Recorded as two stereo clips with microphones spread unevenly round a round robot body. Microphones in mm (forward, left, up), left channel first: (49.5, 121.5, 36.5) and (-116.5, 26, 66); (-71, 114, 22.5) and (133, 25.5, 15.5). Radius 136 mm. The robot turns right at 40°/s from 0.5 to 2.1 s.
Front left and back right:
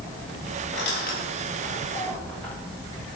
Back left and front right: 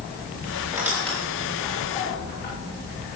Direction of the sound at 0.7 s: 55° left.